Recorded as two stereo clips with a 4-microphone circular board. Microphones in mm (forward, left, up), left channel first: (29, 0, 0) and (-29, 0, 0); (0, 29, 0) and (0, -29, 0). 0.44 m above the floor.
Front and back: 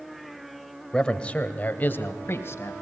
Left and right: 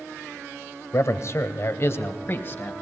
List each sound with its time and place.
0.9 s a man speaking: 75° left, 1.7 m; by 2.7 s 40° left, 2.5 m